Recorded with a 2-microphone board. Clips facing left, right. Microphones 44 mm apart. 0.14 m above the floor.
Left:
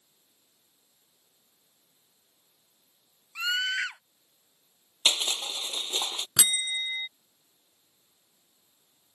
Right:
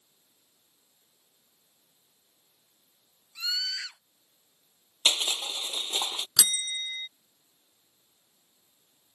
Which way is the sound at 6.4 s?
25° left (ahead or behind).